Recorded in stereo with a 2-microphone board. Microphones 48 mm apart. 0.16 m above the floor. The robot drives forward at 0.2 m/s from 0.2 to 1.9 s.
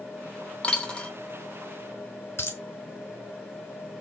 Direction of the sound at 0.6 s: 25° left (ahead or behind).